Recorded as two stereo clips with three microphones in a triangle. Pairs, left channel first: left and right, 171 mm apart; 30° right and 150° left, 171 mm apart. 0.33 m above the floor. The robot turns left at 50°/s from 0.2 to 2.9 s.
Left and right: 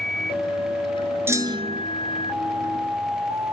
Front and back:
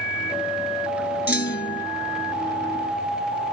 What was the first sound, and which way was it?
A clunk, 15° right.